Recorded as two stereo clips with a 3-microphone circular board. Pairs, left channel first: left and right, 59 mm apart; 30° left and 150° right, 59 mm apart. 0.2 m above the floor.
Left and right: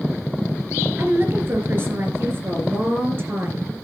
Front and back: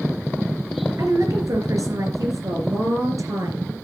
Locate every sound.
1.0 s a woman speaking: 140° right, 4 m